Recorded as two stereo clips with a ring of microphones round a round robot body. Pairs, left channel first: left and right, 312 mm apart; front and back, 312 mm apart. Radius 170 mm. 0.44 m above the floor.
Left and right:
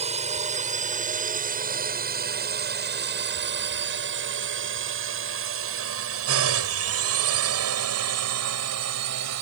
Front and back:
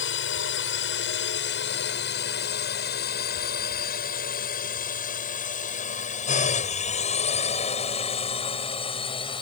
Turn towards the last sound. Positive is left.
turn(degrees=-75)